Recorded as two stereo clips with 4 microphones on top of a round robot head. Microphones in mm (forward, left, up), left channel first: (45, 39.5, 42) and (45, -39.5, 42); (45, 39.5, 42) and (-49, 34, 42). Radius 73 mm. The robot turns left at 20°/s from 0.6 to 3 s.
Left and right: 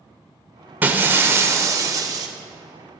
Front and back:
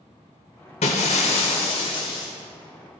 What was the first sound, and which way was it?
Breaking glass, 20° right.